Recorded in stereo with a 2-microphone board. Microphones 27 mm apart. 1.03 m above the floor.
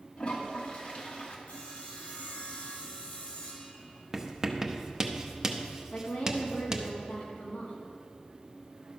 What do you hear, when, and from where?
0.2 s a toilet flushing: 45° left (ahead or behind), 1.5 m
1.5 s sawing: 50° left (ahead or behind), 3 m
4.1 s writing: 20° right (ahead or behind), 0.8 m
5.9 s a woman speaking: 80° left, 1.6 m